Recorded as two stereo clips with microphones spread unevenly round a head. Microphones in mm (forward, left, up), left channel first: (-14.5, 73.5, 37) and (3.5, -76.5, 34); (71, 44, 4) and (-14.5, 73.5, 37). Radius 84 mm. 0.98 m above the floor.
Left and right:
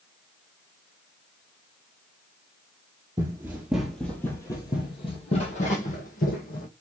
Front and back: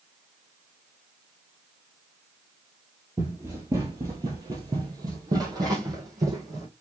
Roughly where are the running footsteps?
Behind right.